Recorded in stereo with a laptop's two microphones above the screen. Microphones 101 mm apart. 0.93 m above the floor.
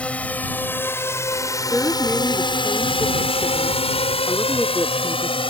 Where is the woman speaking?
5° left (ahead or behind).